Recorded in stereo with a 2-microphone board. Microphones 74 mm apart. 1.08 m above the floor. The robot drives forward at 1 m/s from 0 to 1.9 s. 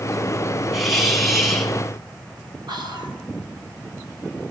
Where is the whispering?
85° right, 4.5 m.